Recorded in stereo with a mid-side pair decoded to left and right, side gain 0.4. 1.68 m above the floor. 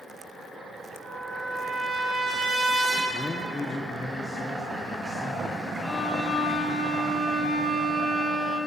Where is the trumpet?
70° right, 5 m.